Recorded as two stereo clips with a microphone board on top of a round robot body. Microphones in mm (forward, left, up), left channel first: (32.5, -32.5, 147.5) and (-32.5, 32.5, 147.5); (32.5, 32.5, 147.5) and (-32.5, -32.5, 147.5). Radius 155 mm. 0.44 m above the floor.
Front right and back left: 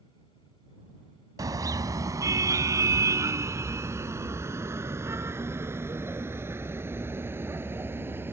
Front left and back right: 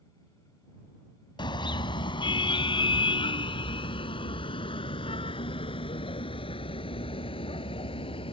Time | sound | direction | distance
1.4 | a car horn | 85° left | ?